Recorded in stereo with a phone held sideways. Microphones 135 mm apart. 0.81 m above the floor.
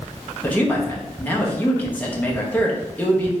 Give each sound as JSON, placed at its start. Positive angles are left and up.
{"t": 0.4, "sound": "a man speaking", "side_deg": 15, "distance_m": 0.8}